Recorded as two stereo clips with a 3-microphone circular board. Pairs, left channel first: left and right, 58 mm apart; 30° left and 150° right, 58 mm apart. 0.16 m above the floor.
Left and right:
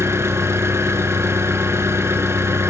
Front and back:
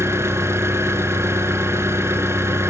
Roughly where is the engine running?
Behind right.